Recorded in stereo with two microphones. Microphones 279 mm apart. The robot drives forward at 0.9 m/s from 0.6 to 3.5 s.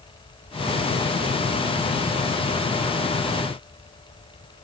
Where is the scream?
I don't hear a scream.